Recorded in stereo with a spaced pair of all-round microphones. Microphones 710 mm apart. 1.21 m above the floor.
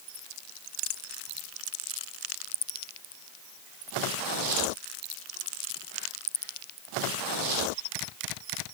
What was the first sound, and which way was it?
Only background noise.